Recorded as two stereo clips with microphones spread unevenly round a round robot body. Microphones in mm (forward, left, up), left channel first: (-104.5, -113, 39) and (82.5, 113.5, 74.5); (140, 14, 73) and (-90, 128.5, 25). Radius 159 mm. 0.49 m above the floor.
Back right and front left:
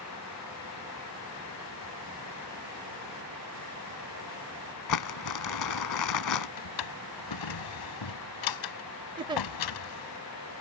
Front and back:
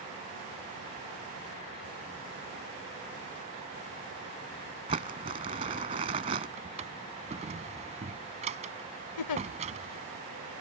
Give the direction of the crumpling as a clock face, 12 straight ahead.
5 o'clock.